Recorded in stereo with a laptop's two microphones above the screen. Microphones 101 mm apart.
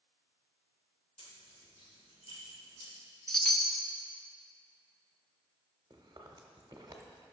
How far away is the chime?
About 0.6 m.